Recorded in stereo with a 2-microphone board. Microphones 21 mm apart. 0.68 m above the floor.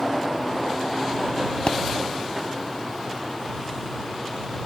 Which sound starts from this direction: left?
A pop, at 1.7 s.